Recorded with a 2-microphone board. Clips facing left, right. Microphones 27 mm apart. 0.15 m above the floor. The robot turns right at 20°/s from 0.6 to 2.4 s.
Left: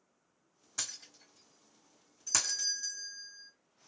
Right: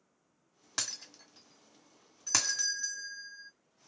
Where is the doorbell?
35° right (ahead or behind), 1.9 m.